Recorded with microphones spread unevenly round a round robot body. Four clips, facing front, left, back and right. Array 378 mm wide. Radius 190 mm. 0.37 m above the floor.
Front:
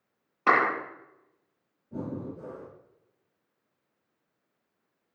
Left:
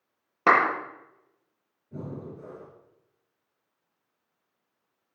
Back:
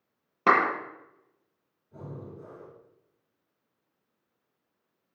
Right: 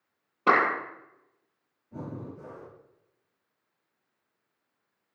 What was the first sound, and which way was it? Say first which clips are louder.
A clap: left 2 dB, back 1 dB; 130° left.